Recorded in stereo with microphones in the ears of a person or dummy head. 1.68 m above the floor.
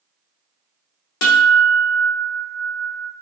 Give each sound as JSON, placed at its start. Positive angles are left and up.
{"t": 1.2, "sound": "a guitar", "side_deg": 75, "distance_m": 0.6}